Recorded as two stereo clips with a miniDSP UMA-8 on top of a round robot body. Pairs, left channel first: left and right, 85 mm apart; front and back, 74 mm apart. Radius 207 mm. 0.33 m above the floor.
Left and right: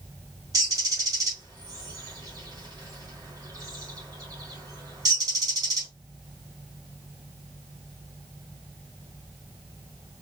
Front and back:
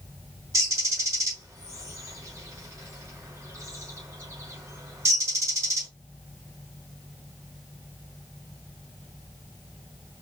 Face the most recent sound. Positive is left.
turn(degrees=-140)